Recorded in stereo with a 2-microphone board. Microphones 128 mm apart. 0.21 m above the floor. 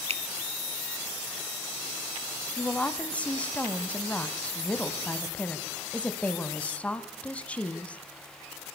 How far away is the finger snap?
About 1.4 m.